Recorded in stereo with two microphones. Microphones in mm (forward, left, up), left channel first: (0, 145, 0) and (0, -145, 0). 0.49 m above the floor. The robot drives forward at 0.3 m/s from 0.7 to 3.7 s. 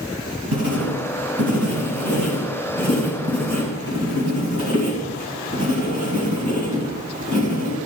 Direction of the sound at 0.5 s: 70° right (ahead or behind).